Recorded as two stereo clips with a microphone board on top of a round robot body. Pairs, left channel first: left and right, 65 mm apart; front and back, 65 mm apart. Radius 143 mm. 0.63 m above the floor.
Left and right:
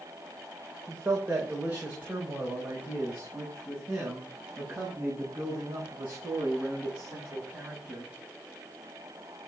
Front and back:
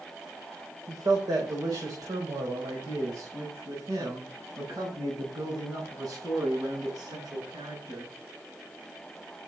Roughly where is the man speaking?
Behind.